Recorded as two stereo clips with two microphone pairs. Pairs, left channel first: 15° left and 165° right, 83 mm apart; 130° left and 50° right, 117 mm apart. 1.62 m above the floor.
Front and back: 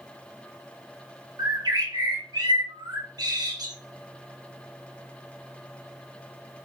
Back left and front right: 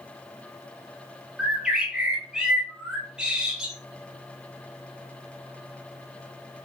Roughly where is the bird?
Behind right.